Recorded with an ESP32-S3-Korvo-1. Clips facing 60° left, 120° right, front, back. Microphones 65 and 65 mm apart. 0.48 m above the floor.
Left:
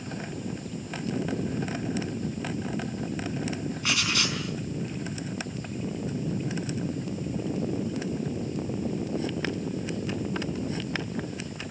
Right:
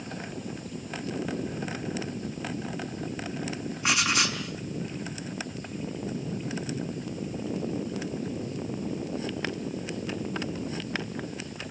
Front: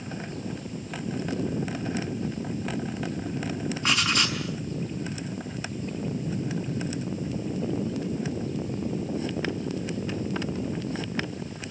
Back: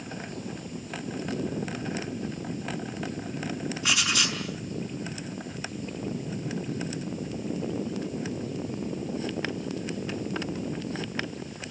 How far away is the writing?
About 5 m.